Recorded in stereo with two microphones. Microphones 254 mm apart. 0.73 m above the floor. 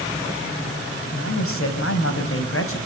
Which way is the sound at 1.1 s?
65° left (ahead or behind).